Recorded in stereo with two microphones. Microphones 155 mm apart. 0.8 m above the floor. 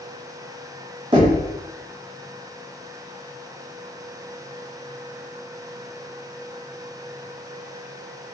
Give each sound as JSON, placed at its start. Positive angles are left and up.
{"t": 1.1, "sound": "knocking", "side_deg": -35, "distance_m": 1.4}